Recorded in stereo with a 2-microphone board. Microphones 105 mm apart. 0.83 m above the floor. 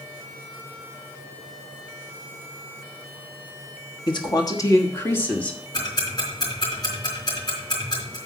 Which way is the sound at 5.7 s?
40° left (ahead or behind).